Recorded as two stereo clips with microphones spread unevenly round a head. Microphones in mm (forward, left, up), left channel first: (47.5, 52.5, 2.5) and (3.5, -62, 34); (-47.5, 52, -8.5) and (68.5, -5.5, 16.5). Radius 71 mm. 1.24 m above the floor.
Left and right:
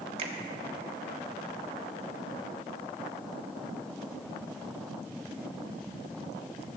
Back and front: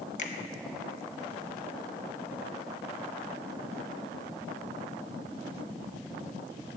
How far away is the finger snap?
About 1.1 m.